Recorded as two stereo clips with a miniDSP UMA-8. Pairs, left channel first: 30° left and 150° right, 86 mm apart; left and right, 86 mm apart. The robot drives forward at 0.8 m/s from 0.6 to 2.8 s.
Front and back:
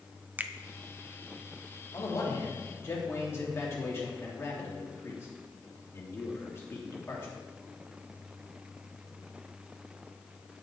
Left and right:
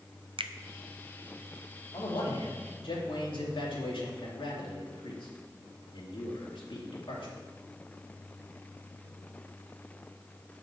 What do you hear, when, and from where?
0.4 s a finger snap: 80° right, 0.6 m
1.9 s a man speaking: 75° left, 3 m; by 7.3 s 90° left, 3 m